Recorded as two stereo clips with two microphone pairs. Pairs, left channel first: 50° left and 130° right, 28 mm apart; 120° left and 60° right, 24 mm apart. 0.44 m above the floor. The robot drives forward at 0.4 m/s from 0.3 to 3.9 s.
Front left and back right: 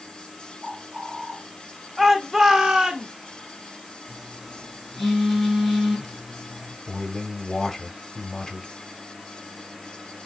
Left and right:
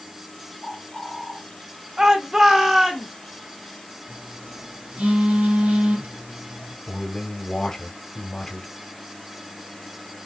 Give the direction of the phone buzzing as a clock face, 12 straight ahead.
1 o'clock.